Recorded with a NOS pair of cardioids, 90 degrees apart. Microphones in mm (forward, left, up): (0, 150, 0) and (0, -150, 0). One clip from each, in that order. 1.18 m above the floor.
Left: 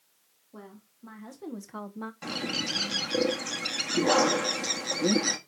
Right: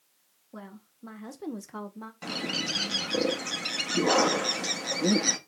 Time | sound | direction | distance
0.5 | a woman speaking | 50° right | 2 m
2.2 | a bird | 5° right | 1.5 m